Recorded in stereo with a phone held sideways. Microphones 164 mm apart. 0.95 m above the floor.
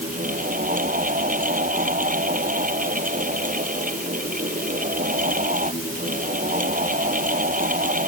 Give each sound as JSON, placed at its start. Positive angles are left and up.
{"t": 0.0, "sound": "a fan", "side_deg": -55}